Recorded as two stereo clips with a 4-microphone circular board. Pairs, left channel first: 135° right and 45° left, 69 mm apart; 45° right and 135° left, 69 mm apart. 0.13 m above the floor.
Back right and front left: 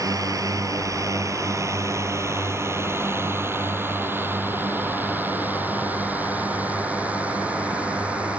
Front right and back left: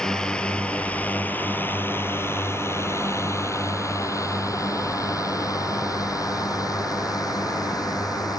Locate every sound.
0.0 s a drone: 35° left; by 8.4 s 25° right